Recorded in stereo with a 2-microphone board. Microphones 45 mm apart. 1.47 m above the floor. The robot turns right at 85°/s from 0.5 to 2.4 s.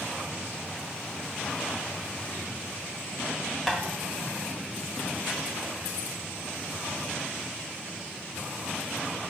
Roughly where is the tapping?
Centre.